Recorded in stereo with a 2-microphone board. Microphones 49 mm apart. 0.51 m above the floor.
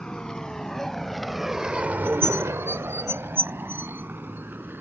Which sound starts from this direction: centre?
A vehicle, at 0.0 s.